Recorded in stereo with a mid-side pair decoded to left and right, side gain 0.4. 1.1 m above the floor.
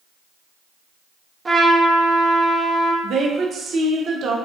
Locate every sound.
1.4 s a trumpet: 30° right, 0.6 m
3.0 s a woman speaking: 65° right, 0.6 m